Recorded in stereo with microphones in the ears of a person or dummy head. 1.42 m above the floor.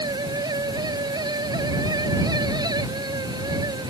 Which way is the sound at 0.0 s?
20° right (ahead or behind).